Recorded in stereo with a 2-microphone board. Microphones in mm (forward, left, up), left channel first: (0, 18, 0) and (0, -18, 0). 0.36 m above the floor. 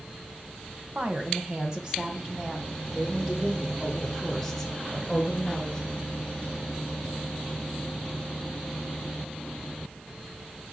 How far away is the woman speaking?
About 1.9 m.